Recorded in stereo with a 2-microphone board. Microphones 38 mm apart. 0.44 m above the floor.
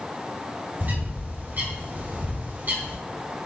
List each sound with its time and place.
0.8 s a bird: 50° right (ahead or behind), 2.5 m